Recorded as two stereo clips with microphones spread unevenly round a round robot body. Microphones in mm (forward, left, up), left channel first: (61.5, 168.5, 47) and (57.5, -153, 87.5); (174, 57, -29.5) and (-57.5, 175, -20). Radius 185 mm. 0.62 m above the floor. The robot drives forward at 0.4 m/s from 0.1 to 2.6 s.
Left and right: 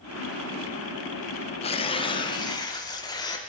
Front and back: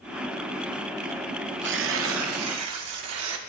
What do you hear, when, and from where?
1.6 s tearing paper: 145° left, 0.6 m; by 3.4 s 160° left, 0.9 m